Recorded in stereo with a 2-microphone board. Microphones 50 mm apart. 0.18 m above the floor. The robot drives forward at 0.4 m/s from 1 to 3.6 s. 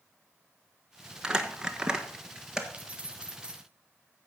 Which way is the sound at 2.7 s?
25° right (ahead or behind).